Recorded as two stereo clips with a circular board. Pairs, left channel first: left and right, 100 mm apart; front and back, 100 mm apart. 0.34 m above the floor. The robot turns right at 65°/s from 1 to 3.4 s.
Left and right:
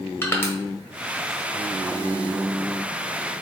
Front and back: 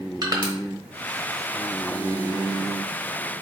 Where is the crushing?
145° left, 1.0 m.